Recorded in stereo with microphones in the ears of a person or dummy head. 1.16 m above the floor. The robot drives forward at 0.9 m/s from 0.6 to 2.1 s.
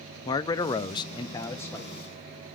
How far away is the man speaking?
About 0.6 m.